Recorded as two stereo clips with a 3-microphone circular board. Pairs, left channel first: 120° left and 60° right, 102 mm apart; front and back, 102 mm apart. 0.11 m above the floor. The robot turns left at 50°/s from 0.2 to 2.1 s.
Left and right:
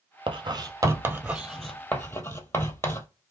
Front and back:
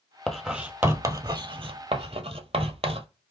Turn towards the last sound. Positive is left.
turn(degrees=-175)